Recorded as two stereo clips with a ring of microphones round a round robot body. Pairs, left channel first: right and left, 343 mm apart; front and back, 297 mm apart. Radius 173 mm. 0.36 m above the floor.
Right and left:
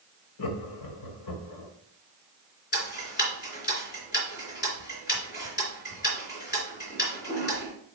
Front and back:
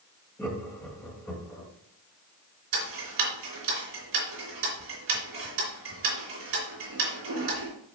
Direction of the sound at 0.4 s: 80° right.